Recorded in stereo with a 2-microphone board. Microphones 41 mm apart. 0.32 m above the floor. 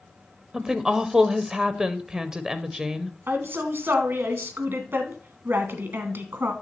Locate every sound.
0.5 s a woman speaking: 15° right (ahead or behind), 0.9 m
3.3 s a woman speaking: 65° right (ahead or behind), 2.5 m